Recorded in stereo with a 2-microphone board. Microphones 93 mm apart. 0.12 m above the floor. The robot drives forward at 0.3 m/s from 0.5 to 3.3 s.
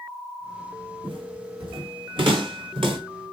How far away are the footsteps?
About 4.5 m.